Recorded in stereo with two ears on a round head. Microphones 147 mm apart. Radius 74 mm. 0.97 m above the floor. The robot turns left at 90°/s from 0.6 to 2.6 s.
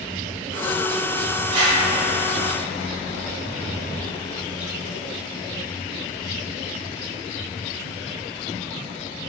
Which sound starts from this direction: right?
A whoosh, at 1.5 s.